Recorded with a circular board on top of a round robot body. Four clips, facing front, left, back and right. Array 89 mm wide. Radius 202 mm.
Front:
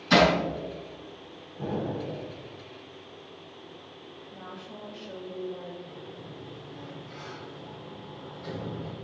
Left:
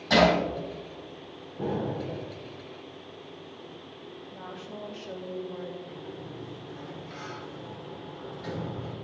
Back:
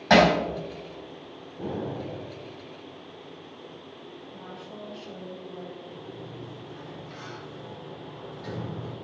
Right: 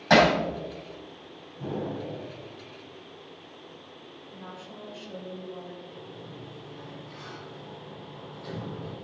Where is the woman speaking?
90° left, 3 m.